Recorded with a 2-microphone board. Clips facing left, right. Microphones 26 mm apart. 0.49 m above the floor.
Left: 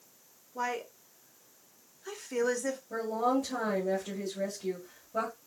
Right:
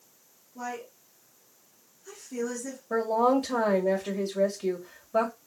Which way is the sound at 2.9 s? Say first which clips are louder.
Right 7 dB; 60° right (ahead or behind).